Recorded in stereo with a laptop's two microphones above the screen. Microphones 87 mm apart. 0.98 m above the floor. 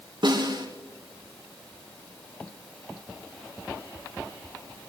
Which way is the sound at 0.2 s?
65° right (ahead or behind).